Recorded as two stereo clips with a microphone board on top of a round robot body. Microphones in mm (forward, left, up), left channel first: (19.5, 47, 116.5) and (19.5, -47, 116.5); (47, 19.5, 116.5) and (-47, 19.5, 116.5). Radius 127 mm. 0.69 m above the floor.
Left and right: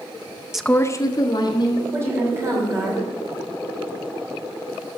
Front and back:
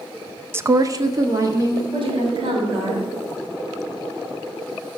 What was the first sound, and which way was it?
A woman speaking, 165° right.